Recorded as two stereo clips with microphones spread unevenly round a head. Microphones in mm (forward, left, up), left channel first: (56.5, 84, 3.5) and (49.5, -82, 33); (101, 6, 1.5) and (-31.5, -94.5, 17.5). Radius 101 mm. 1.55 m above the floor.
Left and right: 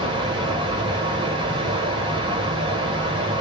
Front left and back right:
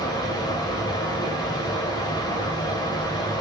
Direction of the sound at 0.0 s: 30° right.